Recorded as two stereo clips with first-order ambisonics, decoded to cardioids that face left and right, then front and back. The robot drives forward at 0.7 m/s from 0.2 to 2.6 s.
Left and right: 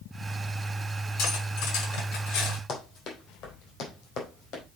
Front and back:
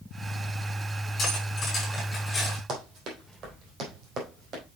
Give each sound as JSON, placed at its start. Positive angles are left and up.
{"t": 1.2, "sound": "cutlery clinking", "azimuth_deg": 60, "distance_m": 5.5}
{"t": 2.7, "sound": "running footsteps", "azimuth_deg": 135, "distance_m": 3.0}